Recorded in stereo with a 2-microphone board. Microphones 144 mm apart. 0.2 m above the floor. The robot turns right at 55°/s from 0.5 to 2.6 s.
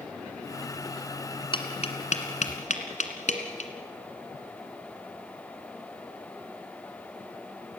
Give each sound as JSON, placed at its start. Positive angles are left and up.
{"t": 1.5, "sound": "tapping", "side_deg": 35, "distance_m": 1.9}